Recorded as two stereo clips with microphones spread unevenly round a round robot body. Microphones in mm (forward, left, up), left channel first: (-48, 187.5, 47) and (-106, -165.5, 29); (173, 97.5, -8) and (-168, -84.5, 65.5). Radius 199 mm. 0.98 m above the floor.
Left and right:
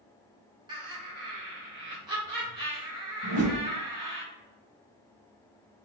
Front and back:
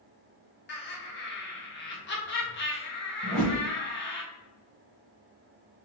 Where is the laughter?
25° right, 1.6 m.